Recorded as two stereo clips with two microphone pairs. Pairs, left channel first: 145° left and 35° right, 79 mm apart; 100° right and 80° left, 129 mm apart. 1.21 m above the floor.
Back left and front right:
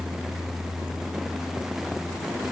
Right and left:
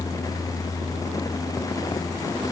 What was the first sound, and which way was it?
Only background noise.